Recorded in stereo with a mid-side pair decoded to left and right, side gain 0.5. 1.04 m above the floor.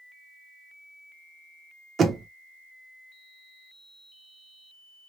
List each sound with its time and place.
2.0 s knocking: 35° right, 0.9 m